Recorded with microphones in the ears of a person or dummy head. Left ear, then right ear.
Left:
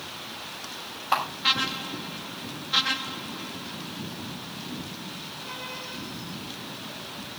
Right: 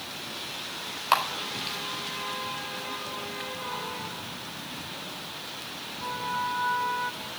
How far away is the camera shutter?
About 4 m.